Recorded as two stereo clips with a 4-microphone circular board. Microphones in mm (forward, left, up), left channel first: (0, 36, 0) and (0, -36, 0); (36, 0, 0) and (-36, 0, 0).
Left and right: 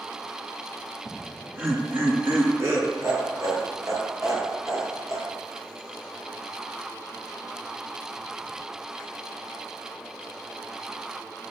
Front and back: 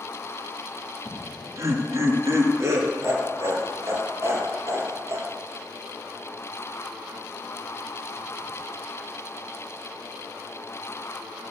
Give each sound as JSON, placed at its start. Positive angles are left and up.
{"t": 1.1, "sound": "laughter", "azimuth_deg": -150, "distance_m": 2.5}